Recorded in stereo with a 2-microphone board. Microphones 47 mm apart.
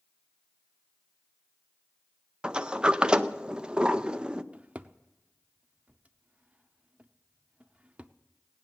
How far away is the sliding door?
About 0.5 m.